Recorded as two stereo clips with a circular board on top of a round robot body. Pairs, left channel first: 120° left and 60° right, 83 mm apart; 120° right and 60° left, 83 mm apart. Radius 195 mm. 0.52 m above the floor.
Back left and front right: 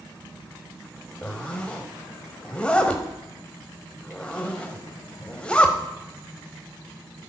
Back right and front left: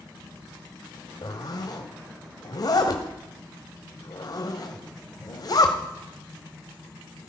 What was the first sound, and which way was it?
A zipper, 165° right.